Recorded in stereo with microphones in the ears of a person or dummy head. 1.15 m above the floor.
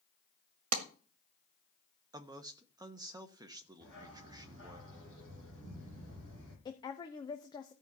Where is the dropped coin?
No dropped coin in this recording.